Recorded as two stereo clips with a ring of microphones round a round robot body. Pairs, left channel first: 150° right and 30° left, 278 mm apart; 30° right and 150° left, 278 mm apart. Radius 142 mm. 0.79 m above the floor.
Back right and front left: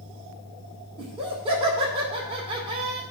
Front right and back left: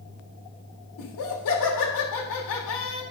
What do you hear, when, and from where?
1.0 s laughter: 40° right, 2.5 m